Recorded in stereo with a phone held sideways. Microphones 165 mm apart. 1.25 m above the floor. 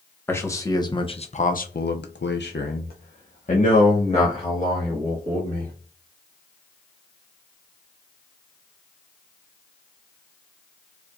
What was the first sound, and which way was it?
A man speaking, 15° left (ahead or behind).